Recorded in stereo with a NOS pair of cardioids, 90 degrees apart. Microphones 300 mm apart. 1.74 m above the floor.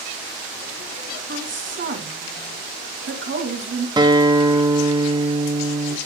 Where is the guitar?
15° right, 1.4 m.